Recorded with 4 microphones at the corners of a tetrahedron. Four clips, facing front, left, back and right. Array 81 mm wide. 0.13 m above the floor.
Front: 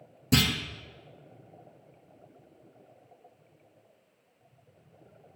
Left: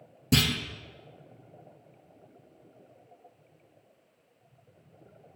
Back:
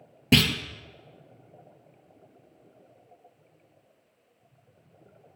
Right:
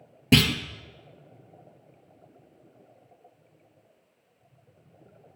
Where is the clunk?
135° right, 0.8 m.